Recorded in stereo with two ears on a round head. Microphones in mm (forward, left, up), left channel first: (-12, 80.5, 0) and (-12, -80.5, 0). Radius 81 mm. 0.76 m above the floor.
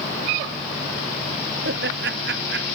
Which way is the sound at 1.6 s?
70° right (ahead or behind).